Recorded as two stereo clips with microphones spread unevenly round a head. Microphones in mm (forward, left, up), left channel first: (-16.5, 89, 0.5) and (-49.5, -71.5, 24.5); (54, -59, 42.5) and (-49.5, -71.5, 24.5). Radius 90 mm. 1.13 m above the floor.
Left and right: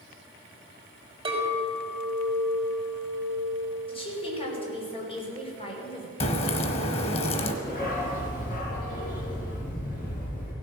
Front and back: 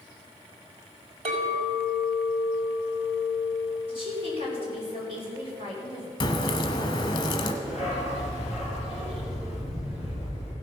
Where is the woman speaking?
135° left, 3.5 m.